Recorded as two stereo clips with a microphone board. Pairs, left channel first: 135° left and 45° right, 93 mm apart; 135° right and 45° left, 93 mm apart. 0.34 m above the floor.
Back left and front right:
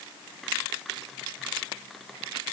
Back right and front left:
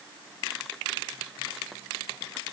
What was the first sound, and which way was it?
Only background noise.